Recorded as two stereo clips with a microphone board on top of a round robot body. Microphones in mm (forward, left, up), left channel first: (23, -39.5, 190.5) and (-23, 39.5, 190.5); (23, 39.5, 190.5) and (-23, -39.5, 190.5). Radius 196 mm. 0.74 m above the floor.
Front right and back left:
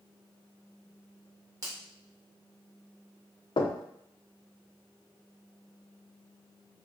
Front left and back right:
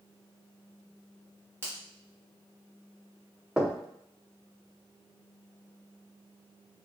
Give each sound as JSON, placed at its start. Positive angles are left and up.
{"t": 1.6, "sound": "a finger snap", "azimuth_deg": 175, "distance_m": 1.0}
{"t": 3.6, "sound": "knocking", "azimuth_deg": -40, "distance_m": 0.5}